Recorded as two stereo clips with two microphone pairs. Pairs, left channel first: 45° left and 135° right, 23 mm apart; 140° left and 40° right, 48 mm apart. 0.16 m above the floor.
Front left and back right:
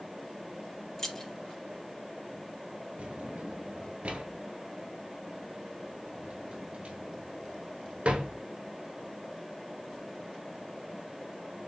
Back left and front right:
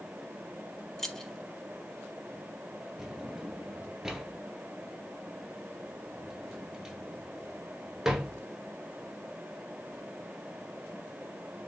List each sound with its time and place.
1.0 s keys jangling: 80° left, 0.8 m
3.0 s a drawer: 125° right, 0.9 m